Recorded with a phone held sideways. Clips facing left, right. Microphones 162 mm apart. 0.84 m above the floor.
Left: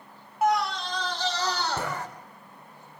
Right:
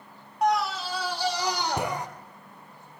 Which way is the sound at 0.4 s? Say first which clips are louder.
Even; 5° left (ahead or behind).